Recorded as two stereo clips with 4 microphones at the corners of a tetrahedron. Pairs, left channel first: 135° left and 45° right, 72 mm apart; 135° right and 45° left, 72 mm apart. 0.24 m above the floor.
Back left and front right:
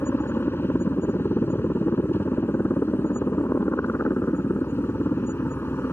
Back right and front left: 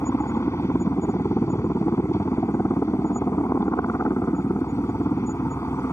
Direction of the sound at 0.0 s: 175° right.